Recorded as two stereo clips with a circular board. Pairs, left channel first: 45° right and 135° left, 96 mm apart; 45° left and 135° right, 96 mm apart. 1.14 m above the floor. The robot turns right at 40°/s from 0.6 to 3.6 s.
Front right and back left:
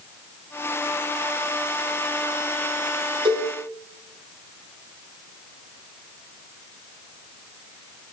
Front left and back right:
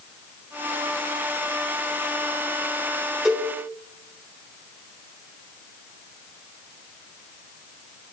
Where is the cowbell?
135° left, 1.5 m; by 3.5 s 150° left, 1.5 m.